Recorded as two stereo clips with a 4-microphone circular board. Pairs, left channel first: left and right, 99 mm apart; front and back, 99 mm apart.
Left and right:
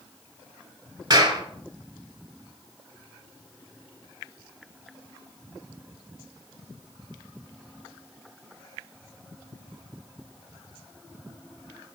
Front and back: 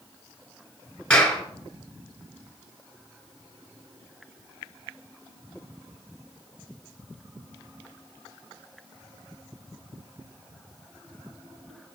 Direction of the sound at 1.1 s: 75° right.